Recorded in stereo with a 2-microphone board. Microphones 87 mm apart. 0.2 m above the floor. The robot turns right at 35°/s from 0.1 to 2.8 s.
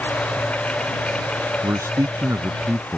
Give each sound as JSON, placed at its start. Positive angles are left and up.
{"t": 1.6, "sound": "a man speaking", "azimuth_deg": -60}